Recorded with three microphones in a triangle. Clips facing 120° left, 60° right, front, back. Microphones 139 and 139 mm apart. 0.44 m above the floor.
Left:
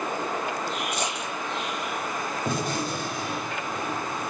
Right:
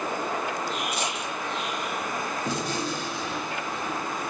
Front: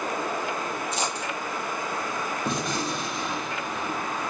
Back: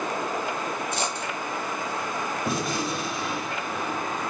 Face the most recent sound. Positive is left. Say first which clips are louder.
# left 2 dB, back 1 dB
turn(degrees=95)